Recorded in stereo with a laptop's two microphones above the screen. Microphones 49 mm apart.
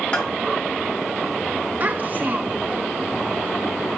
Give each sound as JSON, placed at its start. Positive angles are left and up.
{"t": 0.1, "sound": "a bell", "side_deg": 25, "distance_m": 4.0}
{"t": 1.8, "sound": "a child speaking", "side_deg": -40, "distance_m": 1.1}